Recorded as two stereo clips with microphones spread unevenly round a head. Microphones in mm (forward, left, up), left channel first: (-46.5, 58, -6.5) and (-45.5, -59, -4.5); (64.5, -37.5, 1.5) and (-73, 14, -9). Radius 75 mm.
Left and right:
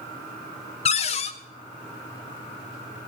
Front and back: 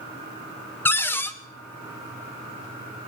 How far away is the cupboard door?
About 0.6 m.